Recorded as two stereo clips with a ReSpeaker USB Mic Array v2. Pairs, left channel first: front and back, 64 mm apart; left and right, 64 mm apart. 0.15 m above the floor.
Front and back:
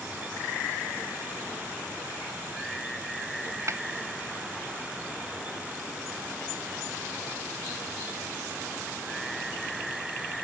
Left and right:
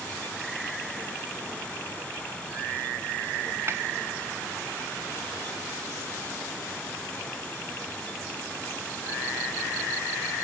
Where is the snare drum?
140° right.